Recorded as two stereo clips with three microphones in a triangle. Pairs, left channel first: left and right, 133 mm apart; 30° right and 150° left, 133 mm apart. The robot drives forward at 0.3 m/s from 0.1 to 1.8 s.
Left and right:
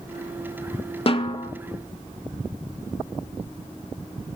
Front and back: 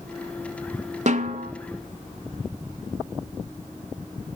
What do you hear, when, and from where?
1.1 s a snare drum: 130° left, 0.6 m; by 1.5 s 140° left, 0.7 m